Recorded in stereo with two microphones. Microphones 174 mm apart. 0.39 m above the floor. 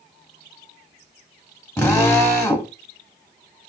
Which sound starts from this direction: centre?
A drill, at 1.8 s.